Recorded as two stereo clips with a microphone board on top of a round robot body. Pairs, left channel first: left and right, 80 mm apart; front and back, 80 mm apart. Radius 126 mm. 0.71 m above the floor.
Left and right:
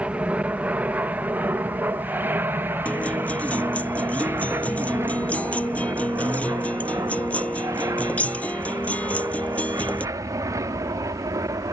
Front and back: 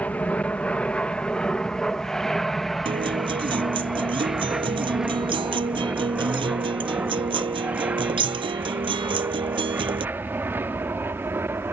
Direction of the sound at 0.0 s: 40° right.